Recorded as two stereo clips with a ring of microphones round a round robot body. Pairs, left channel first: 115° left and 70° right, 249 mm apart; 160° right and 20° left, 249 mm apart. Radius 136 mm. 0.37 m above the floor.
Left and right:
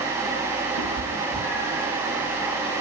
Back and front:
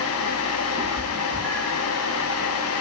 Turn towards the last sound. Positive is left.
turn(degrees=115)